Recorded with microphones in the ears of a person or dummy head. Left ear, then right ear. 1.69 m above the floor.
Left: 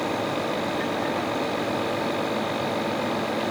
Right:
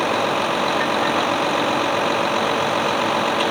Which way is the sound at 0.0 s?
55° right (ahead or behind).